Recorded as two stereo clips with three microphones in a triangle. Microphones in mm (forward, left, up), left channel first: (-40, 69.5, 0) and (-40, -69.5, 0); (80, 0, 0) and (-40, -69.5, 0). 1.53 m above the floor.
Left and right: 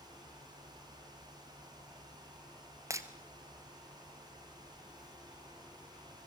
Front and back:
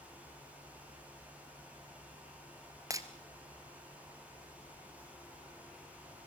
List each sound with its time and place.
2.9 s breaking glass: 125° right, 1.6 m